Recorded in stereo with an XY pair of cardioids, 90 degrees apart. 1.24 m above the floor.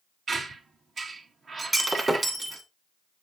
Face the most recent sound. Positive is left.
turn(degrees=-20)